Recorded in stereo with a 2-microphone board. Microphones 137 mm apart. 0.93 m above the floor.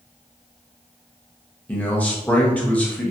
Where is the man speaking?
10° left (ahead or behind), 0.9 m.